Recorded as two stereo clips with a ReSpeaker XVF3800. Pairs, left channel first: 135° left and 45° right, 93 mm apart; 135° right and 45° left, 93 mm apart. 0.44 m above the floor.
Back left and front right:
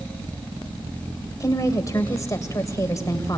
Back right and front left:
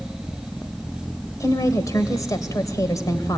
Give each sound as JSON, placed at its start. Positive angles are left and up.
{"t": 1.4, "sound": "a woman speaking", "azimuth_deg": 180, "distance_m": 2.5}